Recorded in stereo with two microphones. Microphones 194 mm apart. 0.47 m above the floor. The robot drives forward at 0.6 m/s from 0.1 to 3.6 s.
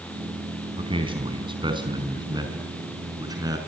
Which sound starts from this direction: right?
A man speaking, at 0.8 s.